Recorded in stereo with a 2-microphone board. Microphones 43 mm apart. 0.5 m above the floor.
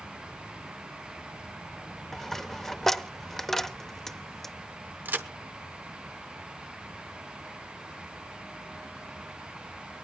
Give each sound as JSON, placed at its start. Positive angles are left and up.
{"t": 2.1, "sound": "a dropped coin", "side_deg": 5, "distance_m": 0.6}
{"t": 5.0, "sound": "a crack", "side_deg": -45, "distance_m": 0.8}